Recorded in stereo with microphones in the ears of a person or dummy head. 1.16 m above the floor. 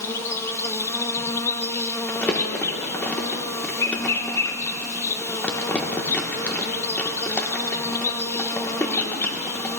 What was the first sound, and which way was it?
An insect, 10° left (ahead or behind).